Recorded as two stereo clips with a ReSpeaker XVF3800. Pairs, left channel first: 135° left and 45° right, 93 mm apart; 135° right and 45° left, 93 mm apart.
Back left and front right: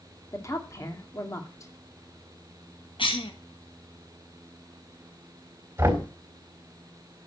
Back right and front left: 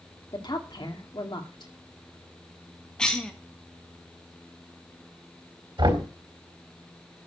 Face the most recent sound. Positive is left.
turn(degrees=15)